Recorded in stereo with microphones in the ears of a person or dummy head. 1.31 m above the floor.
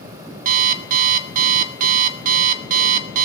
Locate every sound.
0.5 s an alarm clock: 50° right (ahead or behind), 1.1 m